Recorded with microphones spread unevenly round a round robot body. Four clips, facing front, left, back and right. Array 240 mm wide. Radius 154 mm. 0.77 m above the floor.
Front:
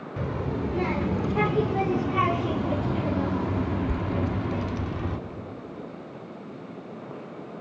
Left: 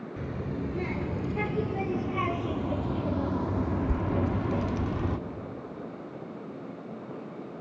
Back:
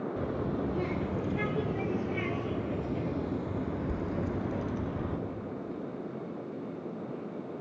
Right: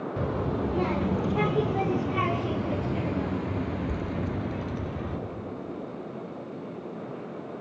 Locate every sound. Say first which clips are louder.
0.2 s a child speaking: right 5 dB, front 6 dB; 35° right, 2.5 m; by 5.2 s 55° left, 1.8 m